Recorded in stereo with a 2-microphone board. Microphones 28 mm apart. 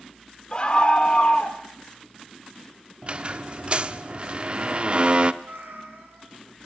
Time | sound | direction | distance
0.5 | a scream | 35° left (ahead or behind) | 1.6 m
3.0 | a squeak | 40° right (ahead or behind) | 0.9 m
5.4 | a cat meowing | 70° right (ahead or behind) | 3.5 m